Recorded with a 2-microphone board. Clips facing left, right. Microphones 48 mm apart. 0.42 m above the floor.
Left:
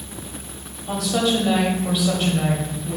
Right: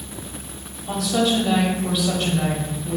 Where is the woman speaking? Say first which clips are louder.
Even; 5° left (ahead or behind), 1.8 m.